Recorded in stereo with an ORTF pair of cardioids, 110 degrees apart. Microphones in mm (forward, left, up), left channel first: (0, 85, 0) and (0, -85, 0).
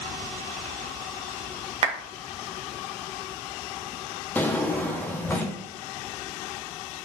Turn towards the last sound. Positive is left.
turn(degrees=10)